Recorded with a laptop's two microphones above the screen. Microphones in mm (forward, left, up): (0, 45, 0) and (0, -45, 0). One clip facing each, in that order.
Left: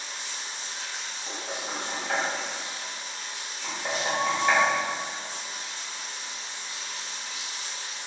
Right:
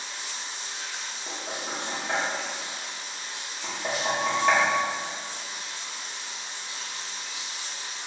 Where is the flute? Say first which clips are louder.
Right 1 dB; 50° right (ahead or behind), 0.8 m.